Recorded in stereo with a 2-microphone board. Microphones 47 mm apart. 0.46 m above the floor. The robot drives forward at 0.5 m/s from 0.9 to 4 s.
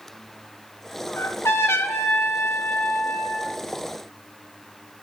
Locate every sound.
1.2 s a trumpet: 80° left, 1.0 m; by 3.5 s 45° left (ahead or behind), 1.4 m